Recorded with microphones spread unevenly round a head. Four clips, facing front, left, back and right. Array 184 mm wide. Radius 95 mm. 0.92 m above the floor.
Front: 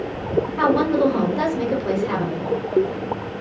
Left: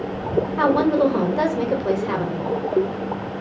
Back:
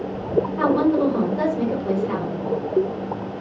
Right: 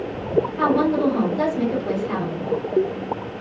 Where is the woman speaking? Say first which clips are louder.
Left 4 dB, front 1 dB; 75° left, 1.0 m.